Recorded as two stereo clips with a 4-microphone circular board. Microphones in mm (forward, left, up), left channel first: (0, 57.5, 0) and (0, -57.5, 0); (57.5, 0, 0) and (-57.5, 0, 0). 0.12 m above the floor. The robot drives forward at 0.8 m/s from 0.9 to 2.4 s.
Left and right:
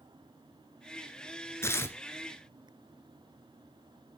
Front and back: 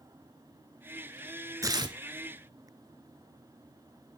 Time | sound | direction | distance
1.6 | tearing paper | 140° left | 0.8 m